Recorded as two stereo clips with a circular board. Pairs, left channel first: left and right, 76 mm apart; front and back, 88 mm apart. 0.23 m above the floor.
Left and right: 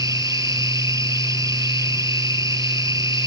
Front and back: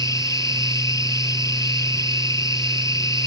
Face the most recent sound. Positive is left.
turn(degrees=-50)